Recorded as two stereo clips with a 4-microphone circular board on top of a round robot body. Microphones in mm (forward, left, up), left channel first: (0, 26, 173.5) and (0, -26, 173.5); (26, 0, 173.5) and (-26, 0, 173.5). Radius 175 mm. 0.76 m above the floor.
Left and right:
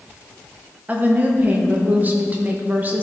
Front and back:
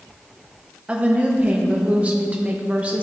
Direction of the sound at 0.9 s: 130° right.